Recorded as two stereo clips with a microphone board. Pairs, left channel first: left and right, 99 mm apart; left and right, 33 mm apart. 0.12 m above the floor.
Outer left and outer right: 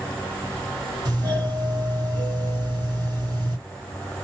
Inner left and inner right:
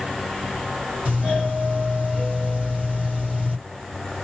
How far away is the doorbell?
About 2 m.